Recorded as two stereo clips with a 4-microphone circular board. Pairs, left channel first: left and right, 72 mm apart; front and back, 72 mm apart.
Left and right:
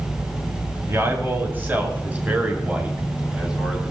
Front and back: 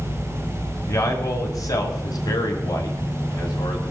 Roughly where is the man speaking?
Ahead right.